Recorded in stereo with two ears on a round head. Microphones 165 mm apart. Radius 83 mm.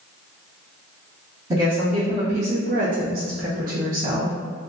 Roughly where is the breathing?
I don't hear breathing.